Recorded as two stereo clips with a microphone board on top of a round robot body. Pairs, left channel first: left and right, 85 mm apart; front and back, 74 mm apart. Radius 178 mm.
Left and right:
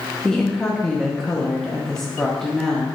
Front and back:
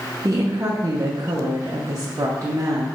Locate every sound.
0.2 s a woman speaking: 170° left, 0.8 m